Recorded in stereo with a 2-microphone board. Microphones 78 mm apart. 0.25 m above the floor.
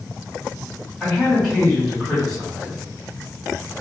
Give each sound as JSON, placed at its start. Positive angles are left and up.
{"t": 1.0, "sound": "a man speaking", "side_deg": 10, "distance_m": 1.7}